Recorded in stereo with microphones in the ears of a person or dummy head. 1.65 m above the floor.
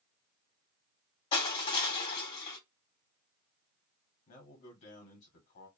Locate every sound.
1.3 s crushing: 35° left (ahead or behind), 1.6 m
4.3 s a man speaking: 55° left (ahead or behind), 1.4 m